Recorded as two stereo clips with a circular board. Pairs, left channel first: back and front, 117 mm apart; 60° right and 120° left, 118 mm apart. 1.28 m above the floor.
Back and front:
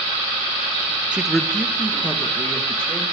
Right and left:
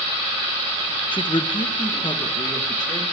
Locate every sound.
1.1 s a woman speaking: 75° right, 0.6 m; by 3.0 s 110° right, 2.5 m